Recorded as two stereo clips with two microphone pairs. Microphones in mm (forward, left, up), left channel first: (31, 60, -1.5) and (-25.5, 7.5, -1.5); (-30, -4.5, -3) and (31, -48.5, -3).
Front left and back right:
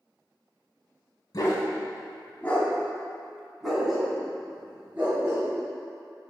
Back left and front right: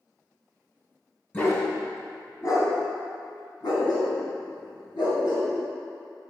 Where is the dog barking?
85° left, 1.9 m; by 5.5 s 155° left, 3.5 m.